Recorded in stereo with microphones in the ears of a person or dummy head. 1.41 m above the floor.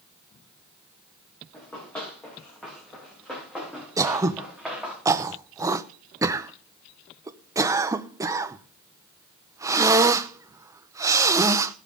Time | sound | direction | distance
1.5 | running footsteps | 15° left (ahead or behind) | 8 m
4.0 | throat clearing | 25° right (ahead or behind) | 0.6 m